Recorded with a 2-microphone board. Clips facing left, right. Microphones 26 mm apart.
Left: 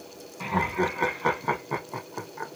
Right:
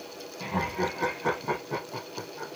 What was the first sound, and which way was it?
Laughter, 55° left (ahead or behind).